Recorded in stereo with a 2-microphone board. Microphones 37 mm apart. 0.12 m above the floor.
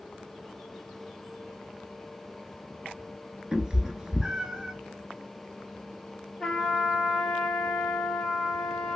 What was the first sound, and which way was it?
A cat meowing, 20° right (ahead or behind).